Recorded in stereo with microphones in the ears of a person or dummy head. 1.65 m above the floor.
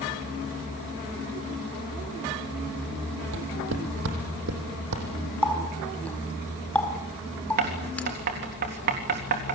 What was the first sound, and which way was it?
Footsteps, 60° right (ahead or behind).